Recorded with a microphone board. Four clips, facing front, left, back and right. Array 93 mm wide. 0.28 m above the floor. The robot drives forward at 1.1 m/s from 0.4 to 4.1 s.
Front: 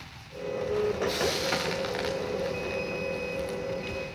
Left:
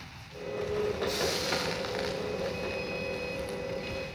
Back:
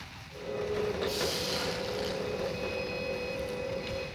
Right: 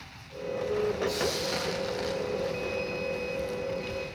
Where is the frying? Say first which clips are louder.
Right 1 dB, front 5 dB; 20° left, 7.5 m; by 3.6 s 35° left, 5 m.